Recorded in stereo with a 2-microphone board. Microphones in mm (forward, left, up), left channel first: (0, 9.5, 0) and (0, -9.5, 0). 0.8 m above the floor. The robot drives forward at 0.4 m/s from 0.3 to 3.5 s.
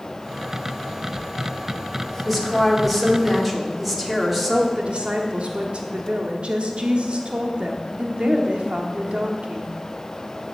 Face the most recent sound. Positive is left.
turn(degrees=-65)  # may be behind; listen again after turning